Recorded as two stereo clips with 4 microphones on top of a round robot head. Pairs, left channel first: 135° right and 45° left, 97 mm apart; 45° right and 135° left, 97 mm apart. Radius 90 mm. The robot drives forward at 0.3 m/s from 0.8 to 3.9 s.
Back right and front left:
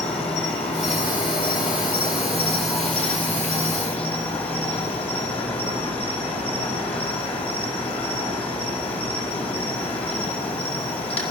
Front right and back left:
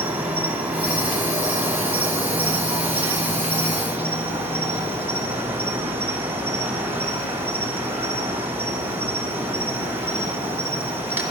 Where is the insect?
155° right, 4 m.